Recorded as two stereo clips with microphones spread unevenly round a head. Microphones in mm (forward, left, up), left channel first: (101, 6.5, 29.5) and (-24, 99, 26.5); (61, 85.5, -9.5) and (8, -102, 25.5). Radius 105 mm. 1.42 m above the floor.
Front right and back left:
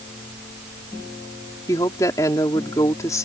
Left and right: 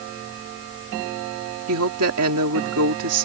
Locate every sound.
1.7 s a woman speaking: 110° right